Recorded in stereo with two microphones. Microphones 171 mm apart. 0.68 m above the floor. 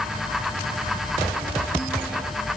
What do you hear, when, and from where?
Only background noise.